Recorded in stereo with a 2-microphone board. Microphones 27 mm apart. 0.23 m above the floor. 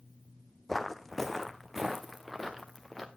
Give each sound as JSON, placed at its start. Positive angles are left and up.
{"t": 0.7, "sound": "footsteps", "side_deg": 10, "distance_m": 0.7}